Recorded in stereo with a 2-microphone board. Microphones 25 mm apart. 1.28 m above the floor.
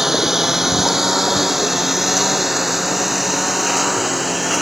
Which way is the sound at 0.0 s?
15° right (ahead or behind).